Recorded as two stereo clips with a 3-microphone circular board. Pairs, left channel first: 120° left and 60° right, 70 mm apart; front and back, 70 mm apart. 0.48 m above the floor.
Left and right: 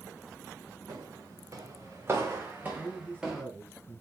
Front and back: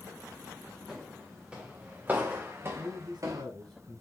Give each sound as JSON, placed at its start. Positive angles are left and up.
{"t": 0.9, "sound": "footsteps", "azimuth_deg": -95, "distance_m": 3.5}
{"t": 2.6, "sound": "a man speaking", "azimuth_deg": 180, "distance_m": 4.5}